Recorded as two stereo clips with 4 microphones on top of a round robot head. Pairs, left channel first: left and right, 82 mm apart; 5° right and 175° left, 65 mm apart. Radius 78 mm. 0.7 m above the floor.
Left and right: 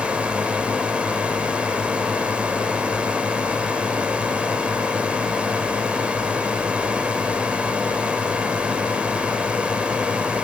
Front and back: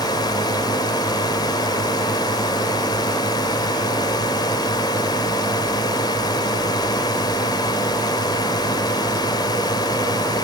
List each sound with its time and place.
0.0 s a drone: 10° right